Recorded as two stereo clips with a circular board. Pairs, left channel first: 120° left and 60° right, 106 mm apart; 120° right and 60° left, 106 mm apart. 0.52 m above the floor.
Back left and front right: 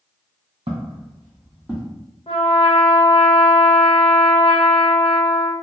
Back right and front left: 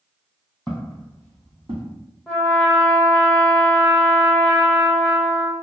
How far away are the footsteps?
About 1.3 m.